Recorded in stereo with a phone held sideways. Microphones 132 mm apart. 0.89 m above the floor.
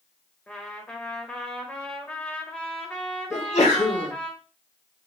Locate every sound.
0.5 s a trumpet: 10° left (ahead or behind), 0.9 m
3.3 s a sneeze: 70° left (ahead or behind), 2 m